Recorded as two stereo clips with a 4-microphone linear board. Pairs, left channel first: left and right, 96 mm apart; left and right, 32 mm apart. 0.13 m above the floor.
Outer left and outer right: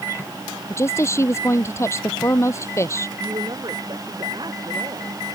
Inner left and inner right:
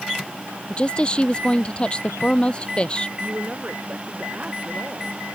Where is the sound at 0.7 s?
30° left (ahead or behind).